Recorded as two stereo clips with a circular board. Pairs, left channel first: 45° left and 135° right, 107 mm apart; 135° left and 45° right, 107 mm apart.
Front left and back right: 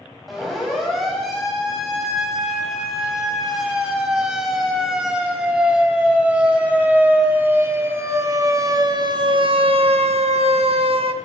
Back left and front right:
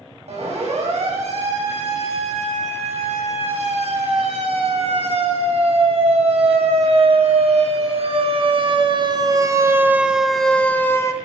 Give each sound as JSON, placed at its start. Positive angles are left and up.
{"t": 0.3, "sound": "a siren", "azimuth_deg": -45, "distance_m": 9.5}